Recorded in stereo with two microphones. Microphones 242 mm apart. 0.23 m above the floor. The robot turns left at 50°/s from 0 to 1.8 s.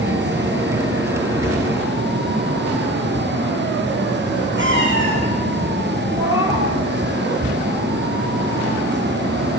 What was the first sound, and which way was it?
A cat meowing, 50° right (ahead or behind).